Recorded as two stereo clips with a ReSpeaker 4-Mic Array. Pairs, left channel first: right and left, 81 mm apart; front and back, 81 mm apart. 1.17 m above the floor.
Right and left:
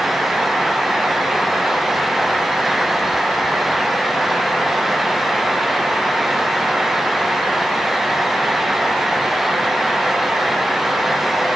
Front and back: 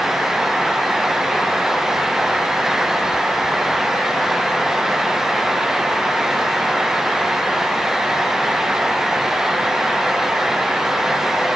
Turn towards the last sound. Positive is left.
No sound to turn to.